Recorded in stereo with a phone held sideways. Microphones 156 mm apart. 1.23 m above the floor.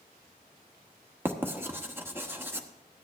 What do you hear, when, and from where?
1.2 s writing: 15° right (ahead or behind), 1.0 m